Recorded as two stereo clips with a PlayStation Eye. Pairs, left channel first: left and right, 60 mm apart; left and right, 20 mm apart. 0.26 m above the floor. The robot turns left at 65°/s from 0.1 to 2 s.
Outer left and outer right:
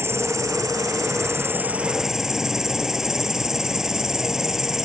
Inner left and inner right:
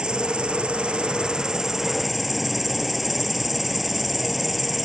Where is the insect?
50° right; by 4.8 s 170° right.